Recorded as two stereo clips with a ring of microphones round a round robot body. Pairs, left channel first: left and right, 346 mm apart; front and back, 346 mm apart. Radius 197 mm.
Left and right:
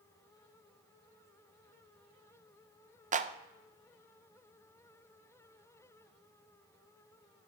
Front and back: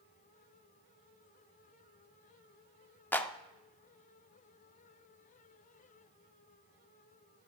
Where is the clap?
75° right, 0.5 m.